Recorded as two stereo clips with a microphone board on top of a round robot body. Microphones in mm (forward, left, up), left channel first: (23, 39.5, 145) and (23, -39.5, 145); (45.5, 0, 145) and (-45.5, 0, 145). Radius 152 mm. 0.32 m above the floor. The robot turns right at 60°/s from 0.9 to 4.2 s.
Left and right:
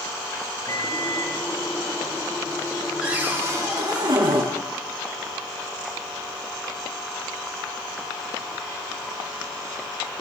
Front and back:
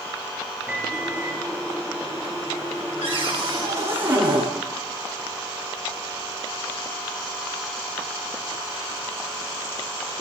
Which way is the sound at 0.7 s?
110° left.